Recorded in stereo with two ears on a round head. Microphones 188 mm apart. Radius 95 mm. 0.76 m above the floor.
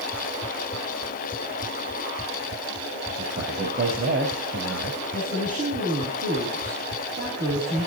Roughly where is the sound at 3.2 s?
Right.